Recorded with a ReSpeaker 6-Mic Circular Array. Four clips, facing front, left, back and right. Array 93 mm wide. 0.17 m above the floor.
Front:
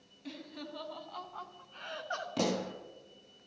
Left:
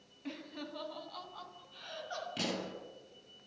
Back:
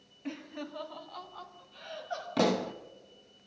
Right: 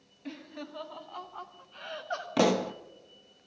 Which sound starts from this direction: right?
A pop, at 2.4 s.